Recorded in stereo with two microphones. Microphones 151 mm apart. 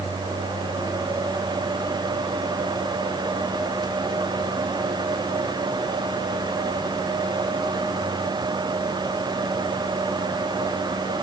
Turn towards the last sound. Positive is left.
No sound to turn to.